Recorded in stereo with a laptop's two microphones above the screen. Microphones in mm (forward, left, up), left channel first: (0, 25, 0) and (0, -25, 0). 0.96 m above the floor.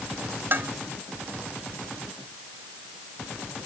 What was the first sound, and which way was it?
Dishes clattering, 50° right (ahead or behind).